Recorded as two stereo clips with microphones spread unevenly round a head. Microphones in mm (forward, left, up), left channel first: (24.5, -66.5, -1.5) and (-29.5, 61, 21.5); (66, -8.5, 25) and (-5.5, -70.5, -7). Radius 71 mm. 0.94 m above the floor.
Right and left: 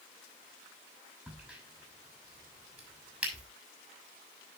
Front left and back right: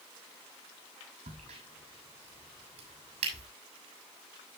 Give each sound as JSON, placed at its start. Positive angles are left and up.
{"t": 1.3, "sound": "a crack", "azimuth_deg": -165, "distance_m": 7.0}